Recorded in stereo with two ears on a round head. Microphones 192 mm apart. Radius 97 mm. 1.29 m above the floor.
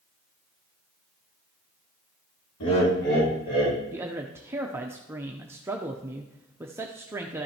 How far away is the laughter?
About 2.5 m.